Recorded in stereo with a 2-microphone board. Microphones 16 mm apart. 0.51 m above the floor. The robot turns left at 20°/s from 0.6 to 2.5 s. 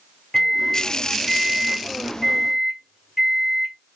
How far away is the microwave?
About 0.8 m.